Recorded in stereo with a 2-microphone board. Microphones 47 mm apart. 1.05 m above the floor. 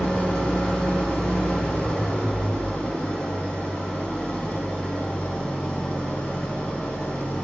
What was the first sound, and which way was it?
An engine running, 20° left (ahead or behind).